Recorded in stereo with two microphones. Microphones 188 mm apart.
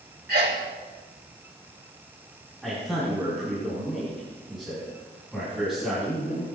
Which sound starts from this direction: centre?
A man speaking, at 2.6 s.